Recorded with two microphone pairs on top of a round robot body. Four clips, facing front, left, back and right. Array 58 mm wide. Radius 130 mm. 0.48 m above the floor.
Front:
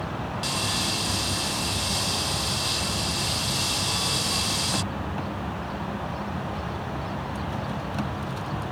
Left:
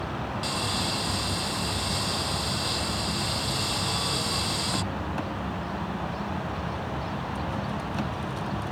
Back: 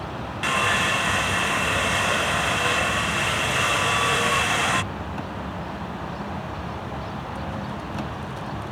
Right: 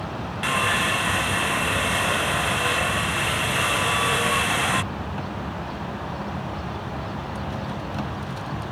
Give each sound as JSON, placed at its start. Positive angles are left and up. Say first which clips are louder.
{"t": 0.4, "sound": "sawing", "louder": "right 12 dB, back 11 dB", "azimuth_deg": -140}